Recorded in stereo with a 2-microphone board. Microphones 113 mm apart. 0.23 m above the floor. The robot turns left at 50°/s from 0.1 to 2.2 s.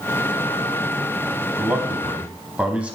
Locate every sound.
1.6 s a man speaking: 130° right, 1.1 m; by 3.0 s 160° right, 1.1 m